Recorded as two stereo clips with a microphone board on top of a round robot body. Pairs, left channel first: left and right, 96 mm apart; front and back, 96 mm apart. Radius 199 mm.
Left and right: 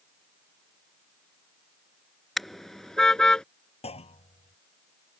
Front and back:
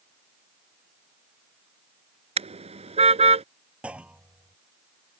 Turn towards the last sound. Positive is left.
turn(degrees=100)